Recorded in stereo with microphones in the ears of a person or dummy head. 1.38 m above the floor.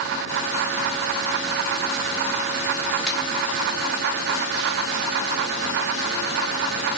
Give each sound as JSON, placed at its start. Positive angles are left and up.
{"t": 3.1, "sound": "a crack", "side_deg": 5, "distance_m": 1.7}